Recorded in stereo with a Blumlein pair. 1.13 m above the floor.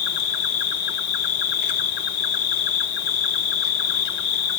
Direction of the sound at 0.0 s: 45° left.